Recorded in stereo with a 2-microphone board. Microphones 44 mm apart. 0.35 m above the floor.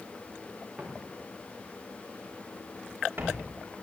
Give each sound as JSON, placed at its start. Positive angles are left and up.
{"t": 0.8, "sound": "footsteps", "side_deg": -20, "distance_m": 5.5}